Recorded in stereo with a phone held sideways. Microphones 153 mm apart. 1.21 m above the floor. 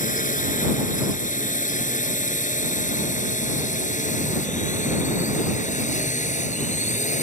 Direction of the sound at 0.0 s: 60° left (ahead or behind).